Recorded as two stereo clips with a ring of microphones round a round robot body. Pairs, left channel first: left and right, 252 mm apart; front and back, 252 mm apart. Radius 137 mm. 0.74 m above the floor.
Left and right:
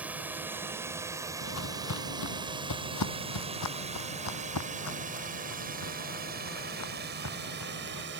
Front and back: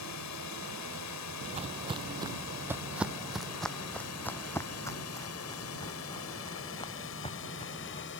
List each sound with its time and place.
0.0 s a drone: 5° right; by 8.2 s 50° right
1.4 s footsteps: 120° left; by 8.1 s 65° left